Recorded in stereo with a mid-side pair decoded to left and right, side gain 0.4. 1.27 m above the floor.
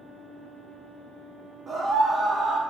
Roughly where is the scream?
Ahead right.